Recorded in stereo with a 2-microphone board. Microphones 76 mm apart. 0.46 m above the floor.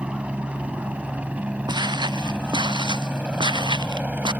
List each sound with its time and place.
0.0 s a helicopter: 15° right (ahead or behind); by 4.4 s 20° right (ahead or behind)
1.7 s footsteps: 75° right (ahead or behind); by 4.3 s 85° right